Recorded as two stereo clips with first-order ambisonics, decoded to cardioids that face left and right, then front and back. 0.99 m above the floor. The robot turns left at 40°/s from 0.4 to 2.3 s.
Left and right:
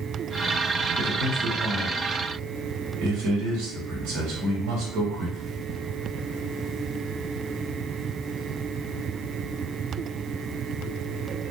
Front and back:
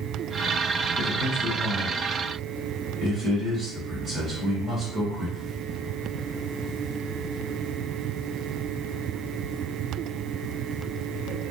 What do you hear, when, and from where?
1.0 s a man speaking: 55° right, 2 m; by 5.6 s 110° right, 2 m